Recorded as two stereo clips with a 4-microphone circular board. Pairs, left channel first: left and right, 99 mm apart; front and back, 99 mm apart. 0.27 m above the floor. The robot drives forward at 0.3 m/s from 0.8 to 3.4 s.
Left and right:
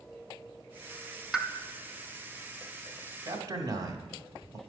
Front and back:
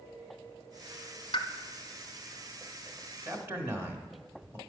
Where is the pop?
5° right, 0.9 m.